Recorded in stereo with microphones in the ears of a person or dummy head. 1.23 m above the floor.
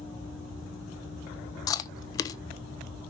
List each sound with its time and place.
1.7 s chewing: 20° left (ahead or behind), 0.5 m